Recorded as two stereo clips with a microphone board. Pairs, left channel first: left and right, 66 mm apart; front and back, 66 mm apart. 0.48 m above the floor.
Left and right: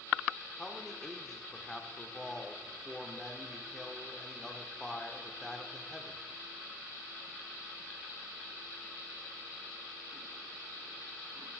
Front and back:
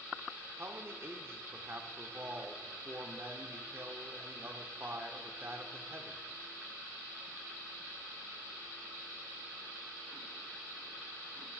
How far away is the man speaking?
About 0.9 m.